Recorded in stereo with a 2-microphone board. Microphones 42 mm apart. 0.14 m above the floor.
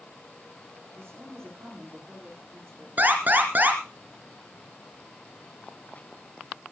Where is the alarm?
45° right (ahead or behind), 2.5 m.